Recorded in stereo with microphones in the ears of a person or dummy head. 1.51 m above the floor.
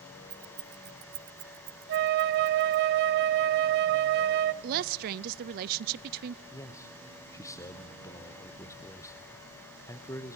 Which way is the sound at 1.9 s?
45° right (ahead or behind).